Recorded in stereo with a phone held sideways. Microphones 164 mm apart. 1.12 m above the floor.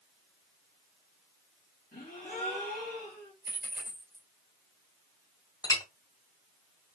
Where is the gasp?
70° left (ahead or behind), 2 m.